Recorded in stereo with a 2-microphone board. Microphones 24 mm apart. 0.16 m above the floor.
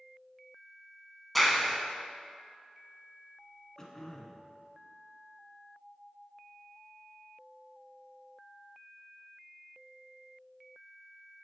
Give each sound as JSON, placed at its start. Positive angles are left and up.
{"t": 1.4, "sound": "a clap", "side_deg": 5, "distance_m": 0.9}
{"t": 3.8, "sound": "throat clearing", "side_deg": 20, "distance_m": 0.9}